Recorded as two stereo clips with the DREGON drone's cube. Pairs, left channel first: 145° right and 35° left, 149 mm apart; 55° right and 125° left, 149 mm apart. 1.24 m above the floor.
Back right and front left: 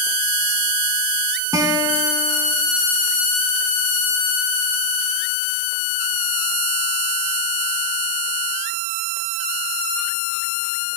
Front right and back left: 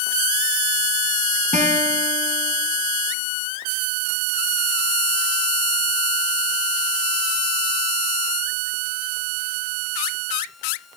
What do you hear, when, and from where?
1.5 s a guitar: 100° left, 2 m